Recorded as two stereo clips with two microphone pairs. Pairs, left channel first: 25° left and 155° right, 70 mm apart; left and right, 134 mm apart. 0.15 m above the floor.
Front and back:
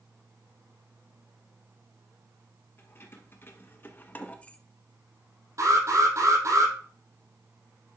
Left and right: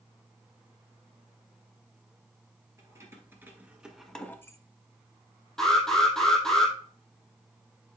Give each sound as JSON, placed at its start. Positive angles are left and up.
{"t": 2.8, "sound": "keys jangling", "azimuth_deg": -25, "distance_m": 2.0}
{"t": 5.6, "sound": "an alarm", "azimuth_deg": 175, "distance_m": 5.5}